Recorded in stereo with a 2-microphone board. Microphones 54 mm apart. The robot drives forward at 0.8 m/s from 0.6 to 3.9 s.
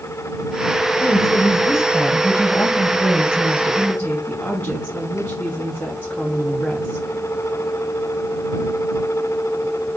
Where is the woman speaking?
50° left (ahead or behind), 2 m; by 7.0 s 25° left (ahead or behind), 3.5 m.